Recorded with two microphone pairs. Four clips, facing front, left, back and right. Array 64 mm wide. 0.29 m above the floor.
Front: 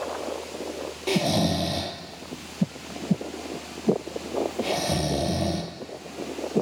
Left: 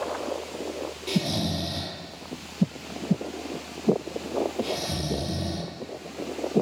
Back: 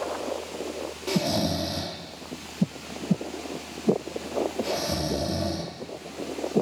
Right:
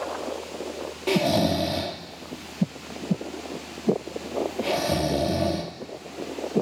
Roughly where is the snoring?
Ahead right.